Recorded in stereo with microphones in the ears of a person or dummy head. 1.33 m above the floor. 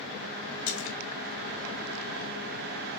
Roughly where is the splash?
Left.